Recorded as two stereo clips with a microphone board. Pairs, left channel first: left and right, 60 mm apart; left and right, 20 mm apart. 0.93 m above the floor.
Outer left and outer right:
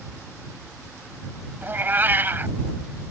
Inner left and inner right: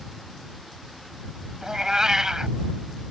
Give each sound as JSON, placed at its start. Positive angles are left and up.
{"t": 1.6, "sound": "a cat meowing", "side_deg": -35}